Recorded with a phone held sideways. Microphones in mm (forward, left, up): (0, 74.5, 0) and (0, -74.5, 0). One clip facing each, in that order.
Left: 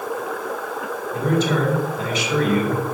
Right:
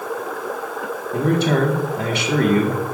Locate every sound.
1.1 s a man speaking: 65° right (ahead or behind), 1.7 m